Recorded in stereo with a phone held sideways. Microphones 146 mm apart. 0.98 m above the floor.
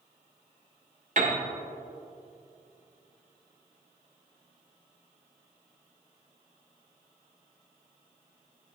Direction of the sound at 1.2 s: 55° right (ahead or behind).